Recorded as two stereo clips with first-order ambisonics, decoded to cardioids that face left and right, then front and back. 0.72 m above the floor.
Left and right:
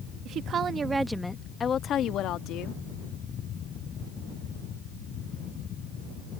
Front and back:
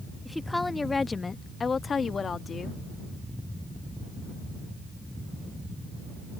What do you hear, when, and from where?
0.2 s a woman speaking: 85° right; by 2.8 s 70° left